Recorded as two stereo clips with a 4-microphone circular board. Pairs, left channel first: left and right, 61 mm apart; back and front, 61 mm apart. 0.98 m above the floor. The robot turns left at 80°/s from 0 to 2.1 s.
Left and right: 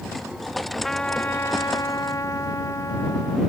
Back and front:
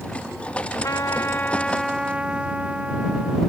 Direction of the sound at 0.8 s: 175° left.